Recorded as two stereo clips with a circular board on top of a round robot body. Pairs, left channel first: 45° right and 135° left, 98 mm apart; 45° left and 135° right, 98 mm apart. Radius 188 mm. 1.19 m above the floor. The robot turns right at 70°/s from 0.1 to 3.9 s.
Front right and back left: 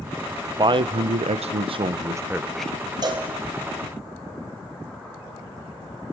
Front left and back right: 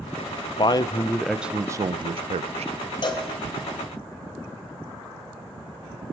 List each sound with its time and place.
0.6 s a man speaking: 85° left, 0.6 m; by 2.7 s 125° right, 0.6 m
3.0 s a cowbell: 85° left, 1.2 m; by 3.3 s 105° left, 1.2 m